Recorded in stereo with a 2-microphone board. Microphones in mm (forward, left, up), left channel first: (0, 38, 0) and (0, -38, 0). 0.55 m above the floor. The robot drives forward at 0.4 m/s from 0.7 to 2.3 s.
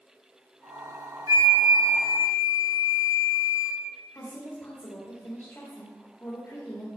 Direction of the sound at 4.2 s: 30° left (ahead or behind).